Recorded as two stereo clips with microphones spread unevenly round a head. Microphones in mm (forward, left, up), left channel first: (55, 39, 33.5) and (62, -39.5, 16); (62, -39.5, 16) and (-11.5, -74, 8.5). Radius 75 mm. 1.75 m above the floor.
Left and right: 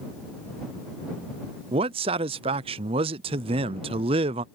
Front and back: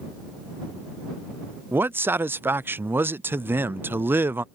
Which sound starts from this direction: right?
A man speaking, at 1.7 s.